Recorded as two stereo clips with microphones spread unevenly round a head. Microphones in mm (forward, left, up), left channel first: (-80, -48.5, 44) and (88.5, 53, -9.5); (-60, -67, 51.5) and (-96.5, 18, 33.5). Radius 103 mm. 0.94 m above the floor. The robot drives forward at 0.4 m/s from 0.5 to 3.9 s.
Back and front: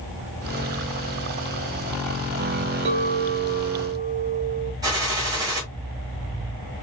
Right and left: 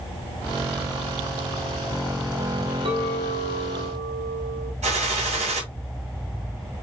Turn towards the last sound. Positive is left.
turn(degrees=110)